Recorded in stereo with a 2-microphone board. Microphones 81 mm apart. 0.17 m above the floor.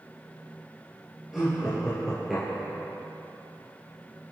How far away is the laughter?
About 3 m.